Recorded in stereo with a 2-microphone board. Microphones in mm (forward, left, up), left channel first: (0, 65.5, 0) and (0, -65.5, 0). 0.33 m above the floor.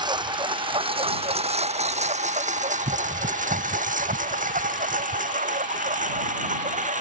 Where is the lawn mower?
35° right (ahead or behind); by 7.0 s 70° right (ahead or behind).